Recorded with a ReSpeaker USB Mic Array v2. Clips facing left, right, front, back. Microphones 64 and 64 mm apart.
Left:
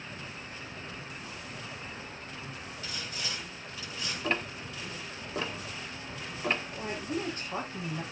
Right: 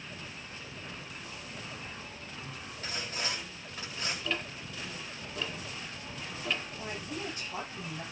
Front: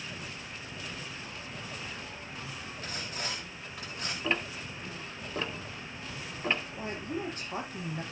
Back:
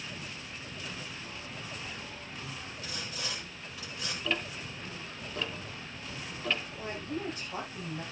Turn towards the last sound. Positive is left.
turn(degrees=45)